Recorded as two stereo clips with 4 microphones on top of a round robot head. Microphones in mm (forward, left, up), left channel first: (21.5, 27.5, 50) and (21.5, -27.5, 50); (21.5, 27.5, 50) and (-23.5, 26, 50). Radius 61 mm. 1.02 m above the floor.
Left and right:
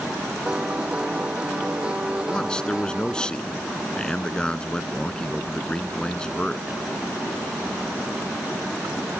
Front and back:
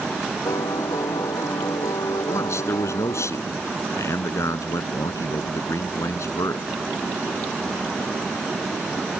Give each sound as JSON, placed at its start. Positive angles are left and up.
{"t": 0.5, "sound": "a piano", "azimuth_deg": -20}
{"t": 2.3, "sound": "a man speaking", "azimuth_deg": 15}